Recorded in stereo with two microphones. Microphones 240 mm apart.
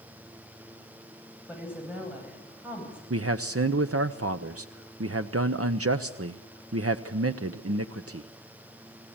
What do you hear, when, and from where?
1.5 s a woman speaking: 5° right (ahead or behind), 9.5 m
3.1 s a man speaking: 70° right (ahead or behind), 0.8 m